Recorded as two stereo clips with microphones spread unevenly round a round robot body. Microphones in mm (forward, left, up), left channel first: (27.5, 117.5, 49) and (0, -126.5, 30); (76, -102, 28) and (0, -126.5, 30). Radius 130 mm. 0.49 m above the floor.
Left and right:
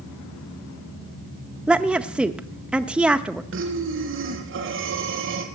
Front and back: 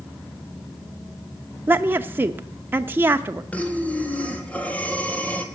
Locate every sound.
1.7 s a woman speaking: 165° right, 0.7 m
3.5 s breathing: 55° right, 2.5 m